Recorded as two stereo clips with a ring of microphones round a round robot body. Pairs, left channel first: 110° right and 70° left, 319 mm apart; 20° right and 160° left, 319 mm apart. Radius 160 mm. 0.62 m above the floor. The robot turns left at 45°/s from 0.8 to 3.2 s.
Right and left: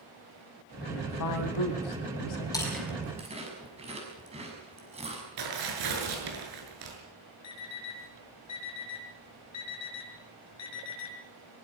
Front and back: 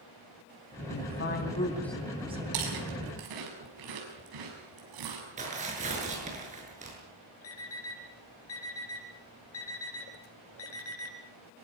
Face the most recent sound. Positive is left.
turn(degrees=-70)